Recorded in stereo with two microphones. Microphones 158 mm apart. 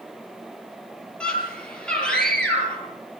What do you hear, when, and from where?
1.2 s a scream: 5° left (ahead or behind), 8 m